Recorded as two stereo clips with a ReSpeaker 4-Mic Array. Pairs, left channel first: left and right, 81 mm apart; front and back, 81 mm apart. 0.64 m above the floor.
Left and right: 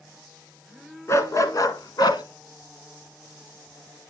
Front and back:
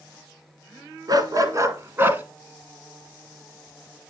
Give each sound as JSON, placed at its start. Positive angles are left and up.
{"t": 1.1, "sound": "a dog barking", "azimuth_deg": 140, "distance_m": 1.6}